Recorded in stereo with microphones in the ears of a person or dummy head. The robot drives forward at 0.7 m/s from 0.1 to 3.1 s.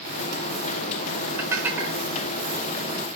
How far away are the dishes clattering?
About 1.3 m.